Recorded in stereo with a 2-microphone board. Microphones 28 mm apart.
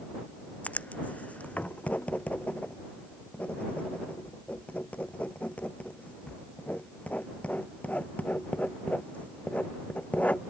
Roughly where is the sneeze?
I don't hear a sneeze.